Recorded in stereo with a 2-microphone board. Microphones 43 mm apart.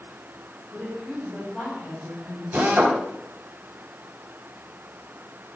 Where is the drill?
35° right (ahead or behind), 4 m.